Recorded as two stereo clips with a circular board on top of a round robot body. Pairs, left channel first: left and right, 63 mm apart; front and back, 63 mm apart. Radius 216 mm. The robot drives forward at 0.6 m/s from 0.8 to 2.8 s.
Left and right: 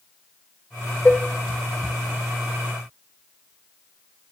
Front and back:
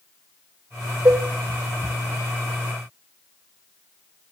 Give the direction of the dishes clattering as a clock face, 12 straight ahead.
7 o'clock.